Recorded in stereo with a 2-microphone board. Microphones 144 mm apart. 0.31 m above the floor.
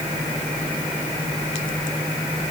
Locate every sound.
Only background noise.